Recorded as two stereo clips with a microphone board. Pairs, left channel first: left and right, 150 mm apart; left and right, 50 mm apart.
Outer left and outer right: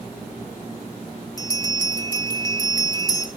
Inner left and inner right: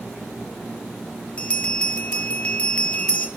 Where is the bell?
25° left (ahead or behind), 0.9 m.